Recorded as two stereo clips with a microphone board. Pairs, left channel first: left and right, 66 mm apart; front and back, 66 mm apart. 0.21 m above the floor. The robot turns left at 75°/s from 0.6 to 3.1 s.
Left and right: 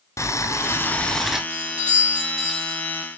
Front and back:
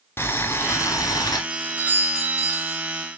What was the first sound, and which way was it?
Boiling, 50° left.